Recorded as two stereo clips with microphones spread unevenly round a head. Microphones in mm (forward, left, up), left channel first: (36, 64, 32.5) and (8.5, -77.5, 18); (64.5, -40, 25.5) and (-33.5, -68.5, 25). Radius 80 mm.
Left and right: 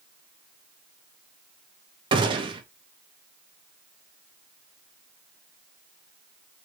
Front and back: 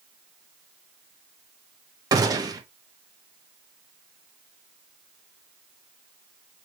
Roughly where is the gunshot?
Behind right.